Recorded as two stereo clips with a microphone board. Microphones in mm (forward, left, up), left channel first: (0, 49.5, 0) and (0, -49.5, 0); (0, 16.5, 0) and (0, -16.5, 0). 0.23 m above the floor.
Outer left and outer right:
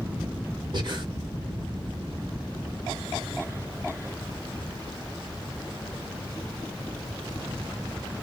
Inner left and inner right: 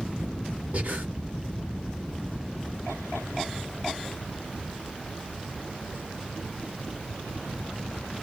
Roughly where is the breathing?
Right.